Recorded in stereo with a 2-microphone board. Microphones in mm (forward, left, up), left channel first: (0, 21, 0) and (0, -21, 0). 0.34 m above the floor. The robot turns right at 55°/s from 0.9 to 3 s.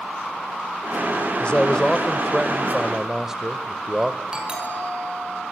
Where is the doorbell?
20° right (ahead or behind), 5.5 m.